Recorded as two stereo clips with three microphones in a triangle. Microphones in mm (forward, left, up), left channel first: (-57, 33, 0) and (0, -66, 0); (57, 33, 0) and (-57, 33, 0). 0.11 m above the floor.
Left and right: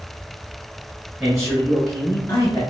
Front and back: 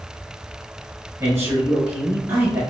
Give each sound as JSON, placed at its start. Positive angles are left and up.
{"t": 1.2, "sound": "a man speaking", "azimuth_deg": -145, "distance_m": 1.3}